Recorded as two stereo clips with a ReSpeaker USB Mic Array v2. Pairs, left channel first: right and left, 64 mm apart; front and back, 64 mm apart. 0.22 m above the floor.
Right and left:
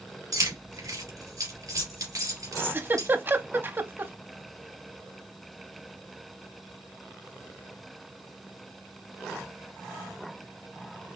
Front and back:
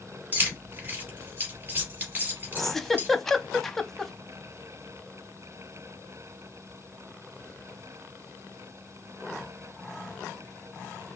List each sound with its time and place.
0.3 s keys jangling: 120° left, 3.5 m
2.6 s a giggle: 80° left, 0.6 m